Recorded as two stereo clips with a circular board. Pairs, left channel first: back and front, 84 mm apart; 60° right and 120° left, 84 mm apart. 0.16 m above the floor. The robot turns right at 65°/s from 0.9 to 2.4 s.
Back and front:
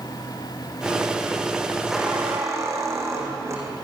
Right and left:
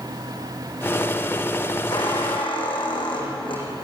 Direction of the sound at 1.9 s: 85° right.